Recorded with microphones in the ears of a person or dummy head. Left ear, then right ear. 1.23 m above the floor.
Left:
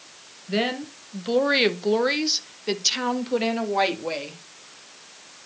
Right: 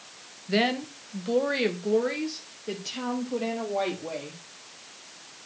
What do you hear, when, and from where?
0.5 s a woman speaking: 10° right (ahead or behind), 0.8 m; by 4.4 s 80° left, 2.0 m